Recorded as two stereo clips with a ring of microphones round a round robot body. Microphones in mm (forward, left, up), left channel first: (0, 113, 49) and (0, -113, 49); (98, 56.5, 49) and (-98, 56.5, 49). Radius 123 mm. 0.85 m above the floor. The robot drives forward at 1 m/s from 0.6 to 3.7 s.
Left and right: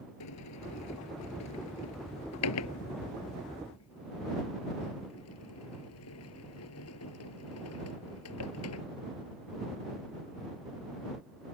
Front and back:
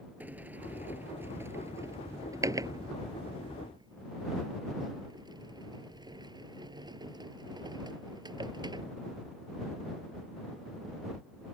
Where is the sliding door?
100° left; by 8.8 s 110° left.